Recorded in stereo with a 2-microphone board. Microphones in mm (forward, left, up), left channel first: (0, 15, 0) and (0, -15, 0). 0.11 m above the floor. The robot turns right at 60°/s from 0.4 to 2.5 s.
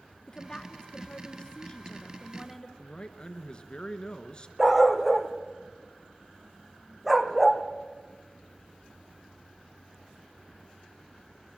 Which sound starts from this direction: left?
A man speaking, at 2.8 s.